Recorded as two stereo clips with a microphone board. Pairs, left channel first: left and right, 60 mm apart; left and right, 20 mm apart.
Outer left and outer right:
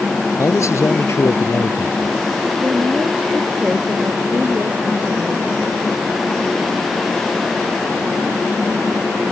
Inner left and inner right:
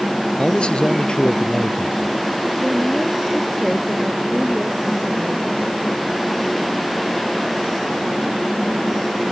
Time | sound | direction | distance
0.4 | a man speaking | 55° left (ahead or behind) | ?
2.6 | a woman speaking | 25° right (ahead or behind) | ?